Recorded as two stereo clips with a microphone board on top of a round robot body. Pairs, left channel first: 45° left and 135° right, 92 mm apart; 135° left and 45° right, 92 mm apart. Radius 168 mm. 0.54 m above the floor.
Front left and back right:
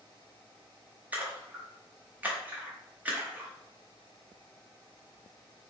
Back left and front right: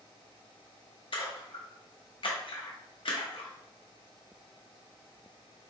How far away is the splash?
About 1.3 m.